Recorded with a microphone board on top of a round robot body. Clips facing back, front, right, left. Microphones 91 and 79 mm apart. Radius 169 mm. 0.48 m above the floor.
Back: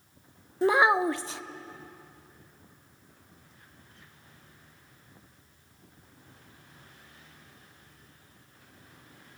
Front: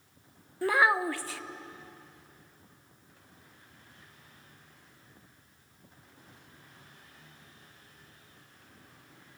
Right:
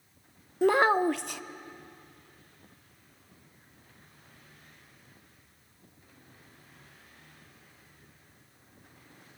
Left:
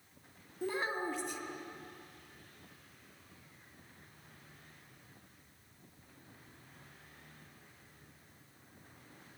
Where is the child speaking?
110° right, 0.6 m.